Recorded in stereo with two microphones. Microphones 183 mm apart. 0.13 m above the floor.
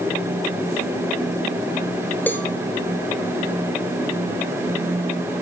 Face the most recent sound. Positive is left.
turn(degrees=10)  # may be behind; listen again after turning